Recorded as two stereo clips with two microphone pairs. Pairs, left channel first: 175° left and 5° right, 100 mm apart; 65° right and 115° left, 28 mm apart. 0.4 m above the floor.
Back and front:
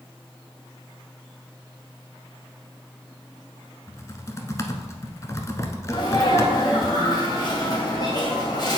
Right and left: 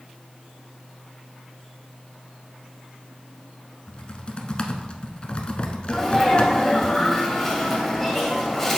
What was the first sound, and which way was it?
Typing on a keyboard, 125° right.